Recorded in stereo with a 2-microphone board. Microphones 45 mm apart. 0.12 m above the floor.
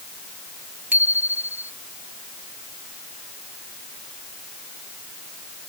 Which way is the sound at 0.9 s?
40° right (ahead or behind).